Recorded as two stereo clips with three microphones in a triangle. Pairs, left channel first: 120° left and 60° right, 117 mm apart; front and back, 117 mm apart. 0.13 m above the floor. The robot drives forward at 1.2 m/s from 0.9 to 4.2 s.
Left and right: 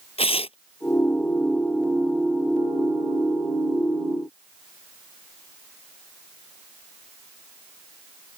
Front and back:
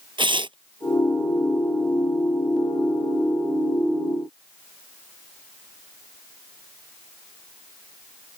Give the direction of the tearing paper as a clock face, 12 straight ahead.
7 o'clock.